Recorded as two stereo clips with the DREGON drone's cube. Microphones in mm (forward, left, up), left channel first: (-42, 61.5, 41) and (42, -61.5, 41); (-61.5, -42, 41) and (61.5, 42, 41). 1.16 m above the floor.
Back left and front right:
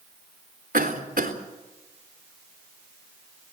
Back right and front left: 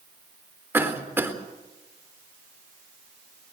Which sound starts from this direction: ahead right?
A cough, at 0.7 s.